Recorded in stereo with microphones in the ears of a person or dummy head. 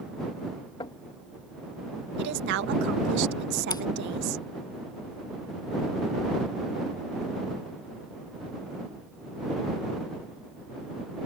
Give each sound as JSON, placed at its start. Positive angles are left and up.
{"t": 0.8, "sound": "knocking", "side_deg": 30}
{"t": 2.2, "sound": "a woman speaking", "side_deg": -70}
{"t": 3.7, "sound": "scissors", "side_deg": 20}